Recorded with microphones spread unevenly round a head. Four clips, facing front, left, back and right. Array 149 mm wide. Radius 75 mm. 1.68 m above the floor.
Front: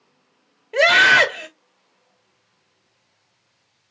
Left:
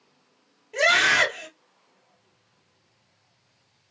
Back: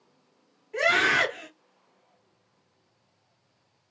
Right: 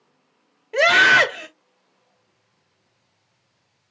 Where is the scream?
40° right, 2 m.